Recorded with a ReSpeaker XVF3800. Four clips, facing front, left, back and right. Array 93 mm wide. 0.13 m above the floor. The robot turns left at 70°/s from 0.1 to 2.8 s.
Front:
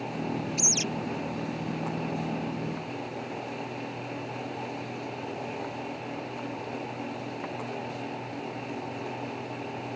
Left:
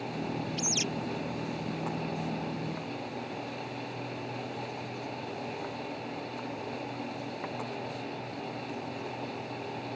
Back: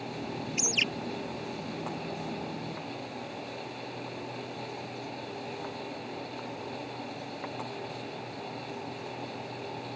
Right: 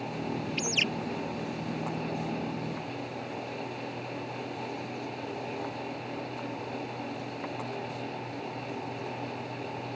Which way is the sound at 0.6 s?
115° right.